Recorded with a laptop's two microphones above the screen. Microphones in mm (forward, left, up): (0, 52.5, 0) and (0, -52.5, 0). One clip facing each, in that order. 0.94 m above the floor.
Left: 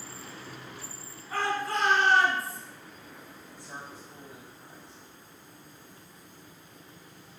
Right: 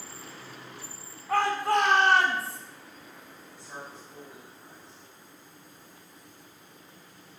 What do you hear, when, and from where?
1.3 s a shout: 65° right (ahead or behind), 8 m; by 2.6 s 75° right (ahead or behind), 7 m
3.5 s a man speaking: 15° left (ahead or behind), 5.5 m